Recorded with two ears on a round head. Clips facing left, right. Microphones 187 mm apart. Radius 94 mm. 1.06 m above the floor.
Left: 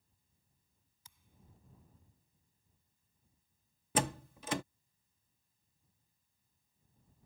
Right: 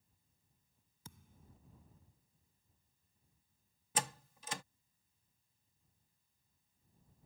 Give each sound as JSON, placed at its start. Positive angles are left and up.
{"t": 1.1, "sound": "a thud", "side_deg": -45}
{"t": 4.0, "sound": "a door slam", "side_deg": 50}